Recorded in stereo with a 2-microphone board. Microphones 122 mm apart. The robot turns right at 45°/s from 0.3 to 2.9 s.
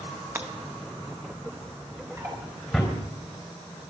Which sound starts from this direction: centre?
Breaking glass, at 0.3 s.